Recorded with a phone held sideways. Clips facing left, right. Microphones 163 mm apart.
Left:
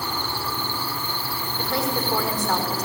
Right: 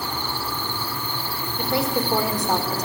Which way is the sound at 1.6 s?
15° right (ahead or behind).